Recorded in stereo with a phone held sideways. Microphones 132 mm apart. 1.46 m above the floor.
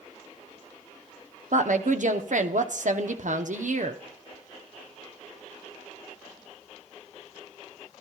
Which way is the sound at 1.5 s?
70° right (ahead or behind).